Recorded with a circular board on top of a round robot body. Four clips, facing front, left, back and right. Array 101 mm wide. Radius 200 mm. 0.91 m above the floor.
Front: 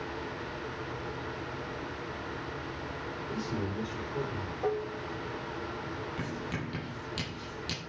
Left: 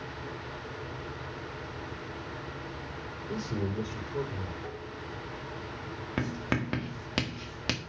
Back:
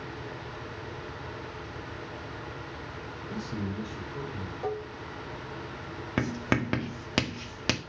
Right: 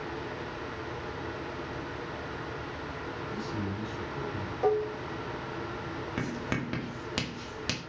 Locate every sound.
3.3 s a man speaking: 75° left, 5 m
4.6 s dishes clattering: 85° right, 0.7 m
6.2 s writing: 165° left, 1.8 m